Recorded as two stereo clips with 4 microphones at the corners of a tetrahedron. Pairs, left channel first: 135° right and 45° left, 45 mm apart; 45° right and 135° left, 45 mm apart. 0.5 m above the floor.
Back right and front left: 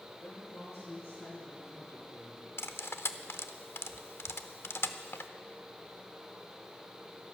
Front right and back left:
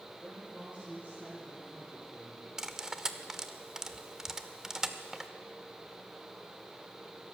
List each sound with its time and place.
0.2 s a woman speaking: 160° right, 8 m; by 2.5 s 170° right, 10 m
2.6 s cutlery clinking: 150° right, 0.7 m